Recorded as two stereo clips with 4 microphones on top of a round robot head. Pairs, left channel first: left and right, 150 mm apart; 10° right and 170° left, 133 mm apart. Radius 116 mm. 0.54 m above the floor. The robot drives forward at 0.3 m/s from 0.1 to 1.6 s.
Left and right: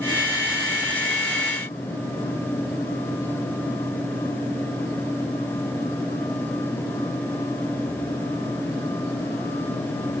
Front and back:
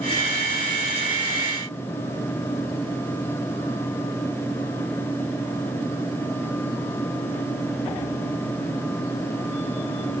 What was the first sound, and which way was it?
Only background noise.